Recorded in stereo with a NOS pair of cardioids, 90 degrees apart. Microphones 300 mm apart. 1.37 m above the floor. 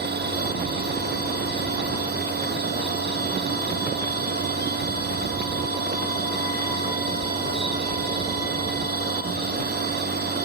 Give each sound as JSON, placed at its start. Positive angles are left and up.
{"t": 0.0, "sound": "a machine running", "azimuth_deg": -35}